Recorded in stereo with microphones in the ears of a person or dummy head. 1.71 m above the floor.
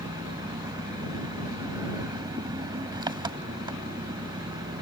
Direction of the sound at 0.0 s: 20° right (ahead or behind).